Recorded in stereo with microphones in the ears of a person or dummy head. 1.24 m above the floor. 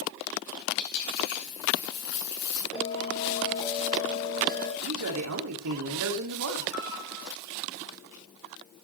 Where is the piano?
85° left, 7 m.